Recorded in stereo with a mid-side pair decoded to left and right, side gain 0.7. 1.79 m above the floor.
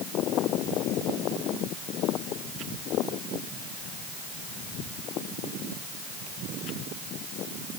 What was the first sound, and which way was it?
Only background noise.